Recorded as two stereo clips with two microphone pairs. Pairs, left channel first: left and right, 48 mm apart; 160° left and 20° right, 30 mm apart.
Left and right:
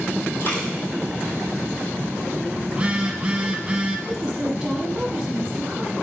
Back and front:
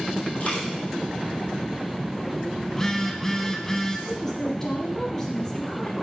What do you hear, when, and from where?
0.4 s a dropped coin: 120° left, 2.0 m
2.7 s a phone buzzing: 135° right, 0.6 m
4.1 s a woman speaking: 155° right, 1.0 m